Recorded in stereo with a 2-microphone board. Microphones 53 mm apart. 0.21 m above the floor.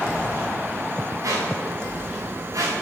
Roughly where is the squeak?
Right.